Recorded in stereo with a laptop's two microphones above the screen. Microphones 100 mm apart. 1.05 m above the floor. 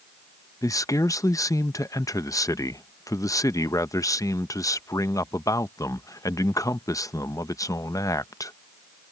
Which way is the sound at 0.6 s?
35° left (ahead or behind).